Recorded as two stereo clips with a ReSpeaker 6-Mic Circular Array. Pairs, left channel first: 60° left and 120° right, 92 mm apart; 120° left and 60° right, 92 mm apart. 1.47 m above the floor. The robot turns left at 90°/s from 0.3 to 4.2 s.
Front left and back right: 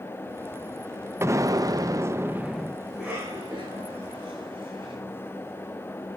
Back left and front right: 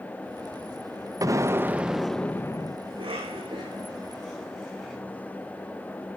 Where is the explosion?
75° right, 0.7 m; by 2.8 s 145° left, 0.7 m.